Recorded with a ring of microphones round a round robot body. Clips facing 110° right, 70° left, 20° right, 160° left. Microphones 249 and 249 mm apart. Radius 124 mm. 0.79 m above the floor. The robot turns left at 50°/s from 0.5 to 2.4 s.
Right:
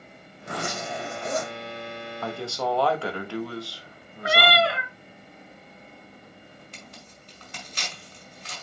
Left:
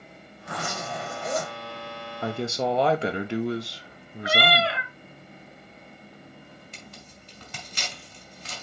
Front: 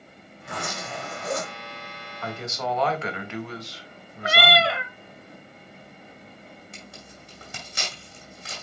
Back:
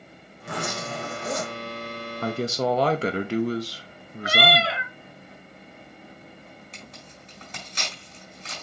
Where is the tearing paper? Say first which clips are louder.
Even, even; 60° left, 4.5 m.